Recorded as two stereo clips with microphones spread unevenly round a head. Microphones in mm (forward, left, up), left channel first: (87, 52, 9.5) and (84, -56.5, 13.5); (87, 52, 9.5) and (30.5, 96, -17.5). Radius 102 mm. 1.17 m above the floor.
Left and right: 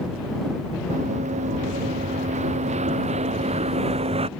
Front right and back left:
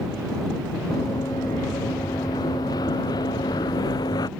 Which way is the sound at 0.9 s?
95° right.